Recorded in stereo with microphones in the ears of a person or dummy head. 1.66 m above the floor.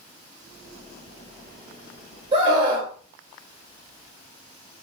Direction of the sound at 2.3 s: 30° right (ahead or behind).